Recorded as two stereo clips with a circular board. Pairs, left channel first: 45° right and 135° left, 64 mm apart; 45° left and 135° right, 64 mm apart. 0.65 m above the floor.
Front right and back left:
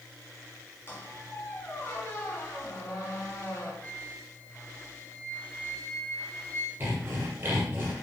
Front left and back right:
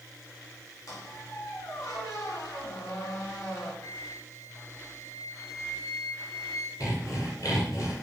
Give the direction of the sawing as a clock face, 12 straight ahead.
9 o'clock.